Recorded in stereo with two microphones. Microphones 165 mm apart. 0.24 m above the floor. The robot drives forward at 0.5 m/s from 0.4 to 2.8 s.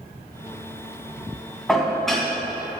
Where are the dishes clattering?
Centre (ahead or behind), 1.3 m.